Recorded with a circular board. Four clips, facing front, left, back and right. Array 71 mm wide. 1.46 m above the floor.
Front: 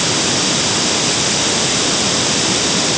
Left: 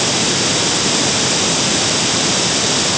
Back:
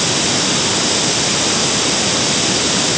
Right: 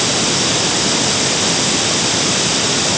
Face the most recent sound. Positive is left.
No sound to turn to.